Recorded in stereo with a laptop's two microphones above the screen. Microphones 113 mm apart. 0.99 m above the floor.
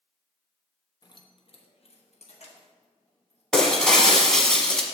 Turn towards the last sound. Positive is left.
turn(degrees=5)  # may be behind; listen again after turning